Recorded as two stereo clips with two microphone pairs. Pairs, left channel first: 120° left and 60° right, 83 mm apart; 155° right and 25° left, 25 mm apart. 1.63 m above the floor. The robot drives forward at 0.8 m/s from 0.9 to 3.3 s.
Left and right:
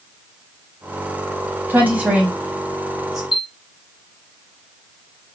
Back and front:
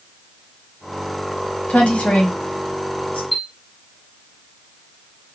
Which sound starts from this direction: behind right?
A woman speaking, at 1.7 s.